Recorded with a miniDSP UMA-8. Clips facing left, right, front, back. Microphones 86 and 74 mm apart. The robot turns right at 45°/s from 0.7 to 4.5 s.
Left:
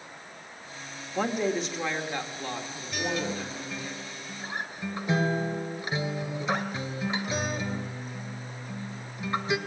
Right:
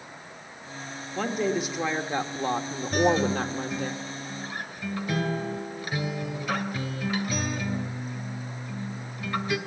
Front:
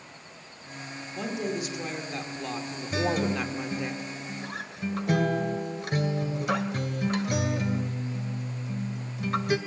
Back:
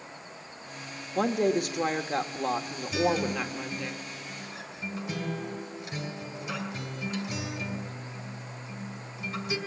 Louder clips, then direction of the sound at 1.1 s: Even, back 7 dB; 170° left.